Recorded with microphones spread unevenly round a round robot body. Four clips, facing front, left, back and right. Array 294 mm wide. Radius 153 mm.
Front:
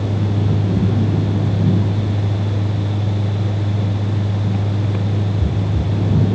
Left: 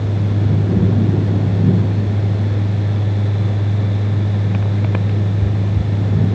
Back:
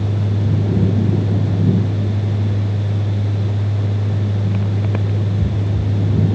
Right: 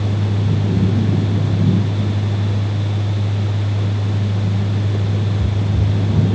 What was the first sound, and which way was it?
Only background noise.